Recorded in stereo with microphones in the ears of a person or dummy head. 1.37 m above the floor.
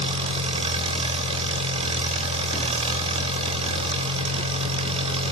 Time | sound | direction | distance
0.0 | an engine running | 40° right (ahead or behind) | 2.5 m